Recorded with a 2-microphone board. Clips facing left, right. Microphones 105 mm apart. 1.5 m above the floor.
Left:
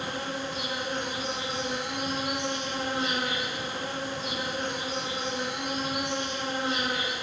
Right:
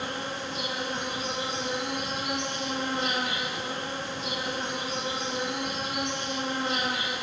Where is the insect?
75° right (ahead or behind), 3.5 m.